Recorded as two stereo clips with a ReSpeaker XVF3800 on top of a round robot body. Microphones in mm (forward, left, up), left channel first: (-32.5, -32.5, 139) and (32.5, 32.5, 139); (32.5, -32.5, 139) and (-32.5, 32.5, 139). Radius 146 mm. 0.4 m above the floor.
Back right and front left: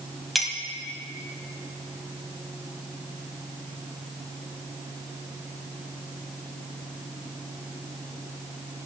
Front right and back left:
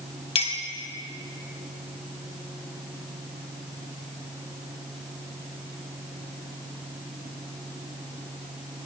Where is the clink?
45° right, 2 m.